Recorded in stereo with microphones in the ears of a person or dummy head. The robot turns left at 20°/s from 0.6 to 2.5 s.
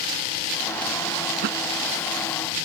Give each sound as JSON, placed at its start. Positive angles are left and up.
{"t": 1.4, "sound": "a thud", "side_deg": -60}